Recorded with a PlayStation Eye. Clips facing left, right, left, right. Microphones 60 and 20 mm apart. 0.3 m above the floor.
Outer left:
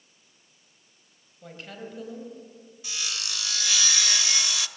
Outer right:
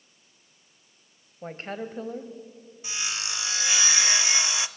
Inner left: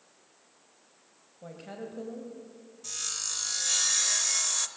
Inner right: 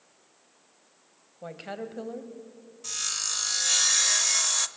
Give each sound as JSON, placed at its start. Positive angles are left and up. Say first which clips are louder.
{"t": 1.4, "sound": "a woman speaking", "louder": "outer right 6 dB, inner right 4 dB", "side_deg": -35, "distance_m": 1.8}
{"t": 2.8, "sound": "sawing", "louder": "outer right 2 dB, inner right 4 dB", "side_deg": -20, "distance_m": 0.7}